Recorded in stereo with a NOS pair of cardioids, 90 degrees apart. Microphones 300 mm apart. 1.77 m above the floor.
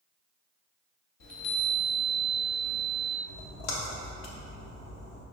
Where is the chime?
60° left, 1.2 m.